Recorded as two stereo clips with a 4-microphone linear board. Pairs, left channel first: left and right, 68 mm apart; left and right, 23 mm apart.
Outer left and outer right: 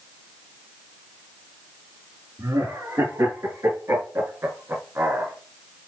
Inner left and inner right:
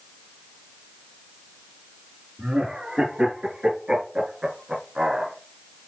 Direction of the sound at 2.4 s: 55° right (ahead or behind).